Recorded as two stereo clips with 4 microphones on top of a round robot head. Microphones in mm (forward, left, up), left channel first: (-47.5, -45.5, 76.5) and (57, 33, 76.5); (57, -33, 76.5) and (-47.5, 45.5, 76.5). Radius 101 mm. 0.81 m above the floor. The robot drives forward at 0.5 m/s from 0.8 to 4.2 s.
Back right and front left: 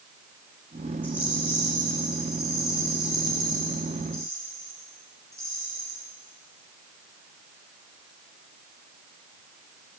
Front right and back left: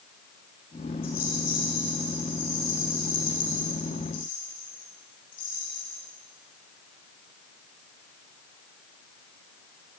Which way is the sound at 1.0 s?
40° right.